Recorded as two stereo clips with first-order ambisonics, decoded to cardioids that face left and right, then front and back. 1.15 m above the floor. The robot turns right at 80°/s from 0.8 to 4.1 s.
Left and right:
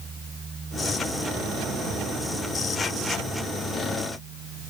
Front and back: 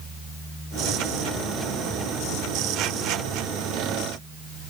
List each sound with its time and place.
Only background noise.